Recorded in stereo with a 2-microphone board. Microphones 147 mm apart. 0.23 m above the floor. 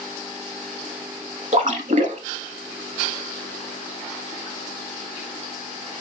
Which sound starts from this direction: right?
A splash, at 1.5 s.